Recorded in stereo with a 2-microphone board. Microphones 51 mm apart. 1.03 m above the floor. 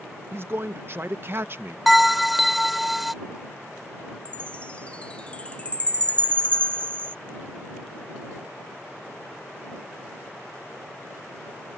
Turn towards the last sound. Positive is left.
turn(degrees=25)  # may be behind; listen again after turning